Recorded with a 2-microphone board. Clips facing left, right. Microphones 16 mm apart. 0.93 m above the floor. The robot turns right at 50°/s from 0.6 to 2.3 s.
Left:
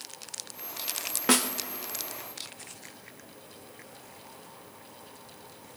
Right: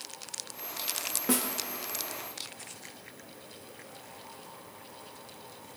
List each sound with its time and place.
1.3 s a snare drum: 60° left (ahead or behind), 0.6 m; by 1.5 s 50° left (ahead or behind), 0.6 m